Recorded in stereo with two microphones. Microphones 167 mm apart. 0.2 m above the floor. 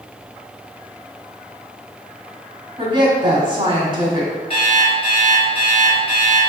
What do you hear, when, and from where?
2.8 s a woman speaking: 30° right (ahead or behind), 1.2 m
4.5 s an alarm clock: 35° left (ahead or behind), 1.6 m